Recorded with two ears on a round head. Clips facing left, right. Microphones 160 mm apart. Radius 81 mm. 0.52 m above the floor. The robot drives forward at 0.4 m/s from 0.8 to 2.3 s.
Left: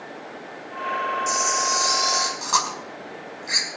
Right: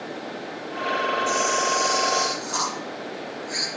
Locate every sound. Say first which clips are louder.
1.3 s a camera shutter: right 3 dB; 80° left, 6 m; by 3.7 s 75° left (ahead or behind), 6 m